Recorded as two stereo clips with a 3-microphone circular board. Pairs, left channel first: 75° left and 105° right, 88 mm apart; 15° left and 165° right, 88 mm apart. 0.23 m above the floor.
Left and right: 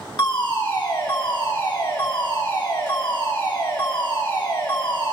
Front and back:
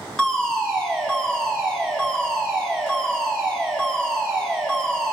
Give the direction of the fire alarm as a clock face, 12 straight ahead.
9 o'clock.